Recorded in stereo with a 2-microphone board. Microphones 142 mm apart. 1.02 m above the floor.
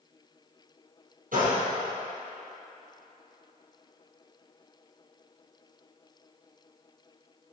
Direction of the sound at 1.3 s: 75° right (ahead or behind).